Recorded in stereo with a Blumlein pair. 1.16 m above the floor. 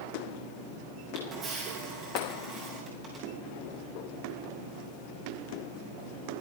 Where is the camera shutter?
25° right, 7.5 m.